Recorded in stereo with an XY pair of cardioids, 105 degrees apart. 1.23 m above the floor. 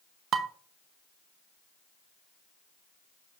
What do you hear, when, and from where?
0.3 s dishes clattering: 60° right, 0.8 m